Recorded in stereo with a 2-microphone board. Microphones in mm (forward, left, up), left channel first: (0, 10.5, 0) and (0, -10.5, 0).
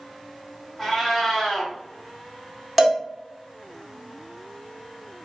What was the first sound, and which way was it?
A cat meowing, 5° left (ahead or behind).